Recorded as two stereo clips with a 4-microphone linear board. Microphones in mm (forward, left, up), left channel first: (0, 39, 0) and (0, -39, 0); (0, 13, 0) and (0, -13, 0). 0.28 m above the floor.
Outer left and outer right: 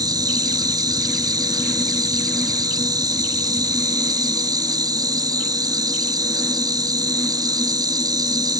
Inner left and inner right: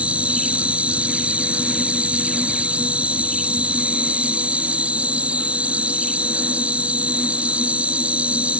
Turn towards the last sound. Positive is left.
turn(degrees=-55)  # may be behind; listen again after turning